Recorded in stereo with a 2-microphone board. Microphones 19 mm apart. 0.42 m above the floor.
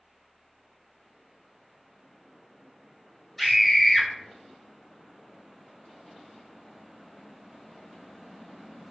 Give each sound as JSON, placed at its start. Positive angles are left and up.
{"t": 3.4, "sound": "a scream", "side_deg": 10, "distance_m": 1.1}